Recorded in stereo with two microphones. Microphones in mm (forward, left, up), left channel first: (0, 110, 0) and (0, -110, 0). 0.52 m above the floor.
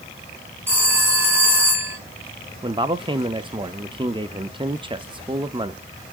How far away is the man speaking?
About 0.8 m.